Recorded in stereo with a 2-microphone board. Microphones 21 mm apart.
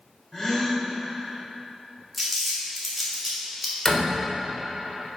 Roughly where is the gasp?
Centre.